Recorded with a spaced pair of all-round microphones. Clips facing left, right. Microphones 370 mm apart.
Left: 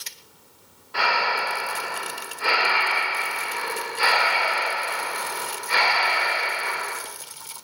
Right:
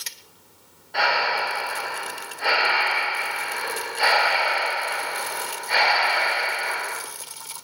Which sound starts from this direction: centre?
Breathing, at 0.9 s.